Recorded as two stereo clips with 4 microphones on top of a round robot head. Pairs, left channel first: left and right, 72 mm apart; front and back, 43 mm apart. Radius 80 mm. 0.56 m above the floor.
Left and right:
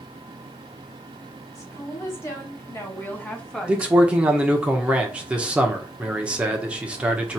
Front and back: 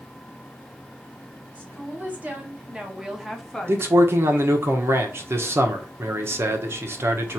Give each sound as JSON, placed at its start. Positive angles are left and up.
{"t": 1.6, "sound": "a woman speaking", "azimuth_deg": 135, "distance_m": 3.0}
{"t": 3.7, "sound": "a man speaking", "azimuth_deg": -165, "distance_m": 1.1}